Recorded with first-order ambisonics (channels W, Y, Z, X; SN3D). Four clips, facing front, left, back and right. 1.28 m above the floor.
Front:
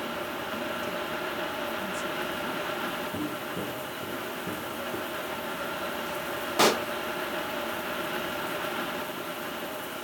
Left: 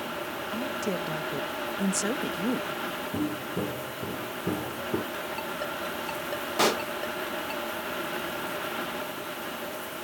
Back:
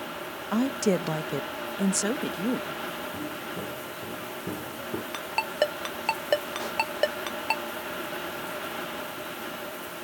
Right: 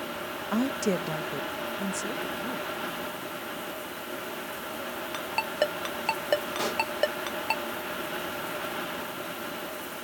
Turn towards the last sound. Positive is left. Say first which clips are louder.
# left 4 dB, front 6 dB
turn(degrees=25)